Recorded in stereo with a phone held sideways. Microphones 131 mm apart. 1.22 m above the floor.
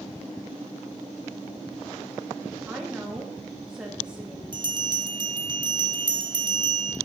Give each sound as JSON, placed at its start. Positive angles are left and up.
{"t": 2.7, "sound": "a woman speaking", "side_deg": -5, "distance_m": 2.5}
{"t": 4.5, "sound": "a bell", "side_deg": -35, "distance_m": 1.3}